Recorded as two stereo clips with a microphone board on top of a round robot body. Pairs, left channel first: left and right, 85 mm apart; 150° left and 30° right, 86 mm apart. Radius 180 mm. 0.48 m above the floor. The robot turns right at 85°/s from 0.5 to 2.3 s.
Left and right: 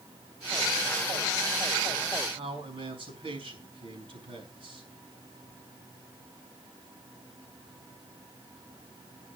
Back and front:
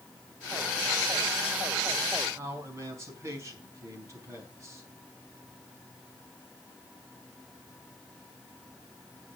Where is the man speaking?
85° right, 5 m.